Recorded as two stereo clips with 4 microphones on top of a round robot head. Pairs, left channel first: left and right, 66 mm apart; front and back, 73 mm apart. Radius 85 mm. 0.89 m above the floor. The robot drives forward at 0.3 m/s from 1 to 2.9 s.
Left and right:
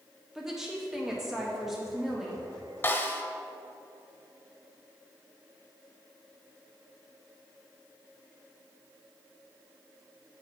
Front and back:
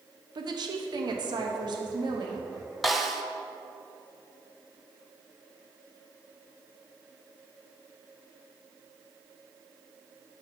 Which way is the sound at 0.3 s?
175° right.